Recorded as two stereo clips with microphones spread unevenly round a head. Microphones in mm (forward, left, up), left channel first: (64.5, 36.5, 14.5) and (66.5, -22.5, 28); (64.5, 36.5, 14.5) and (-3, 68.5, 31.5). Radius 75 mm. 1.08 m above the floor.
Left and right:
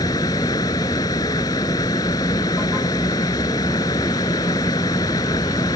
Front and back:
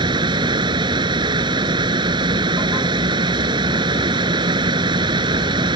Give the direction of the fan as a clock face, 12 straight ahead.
7 o'clock.